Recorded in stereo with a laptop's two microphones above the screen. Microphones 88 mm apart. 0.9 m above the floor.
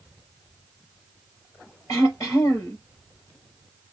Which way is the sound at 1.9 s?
35° left (ahead or behind).